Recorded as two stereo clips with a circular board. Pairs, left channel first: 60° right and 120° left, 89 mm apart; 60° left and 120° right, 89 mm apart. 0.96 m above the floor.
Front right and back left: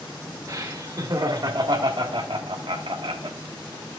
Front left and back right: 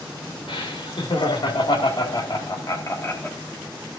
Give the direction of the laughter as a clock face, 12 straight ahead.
10 o'clock.